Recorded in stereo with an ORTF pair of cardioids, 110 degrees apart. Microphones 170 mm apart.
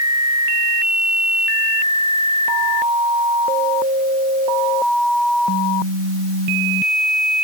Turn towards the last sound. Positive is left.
No sound to turn to.